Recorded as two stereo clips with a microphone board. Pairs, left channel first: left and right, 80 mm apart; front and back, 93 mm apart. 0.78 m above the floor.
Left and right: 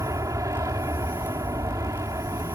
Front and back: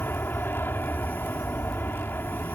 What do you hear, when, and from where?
0.0 s an aircraft: 60° right